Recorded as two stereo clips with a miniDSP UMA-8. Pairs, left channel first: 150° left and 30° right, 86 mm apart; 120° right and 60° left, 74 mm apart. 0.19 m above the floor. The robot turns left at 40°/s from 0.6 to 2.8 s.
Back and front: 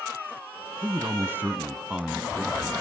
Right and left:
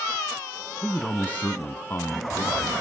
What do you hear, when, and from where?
0.8 s a man speaking: 55° right, 1.3 m; by 2.7 s 130° right, 1.3 m